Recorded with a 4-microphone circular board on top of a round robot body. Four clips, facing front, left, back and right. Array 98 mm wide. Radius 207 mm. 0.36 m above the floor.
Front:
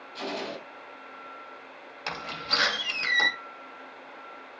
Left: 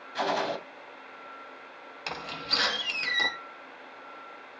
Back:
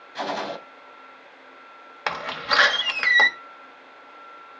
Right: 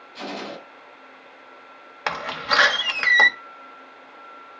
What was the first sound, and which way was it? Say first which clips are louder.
A gunshot: left 5 dB, back 6 dB; 135° left.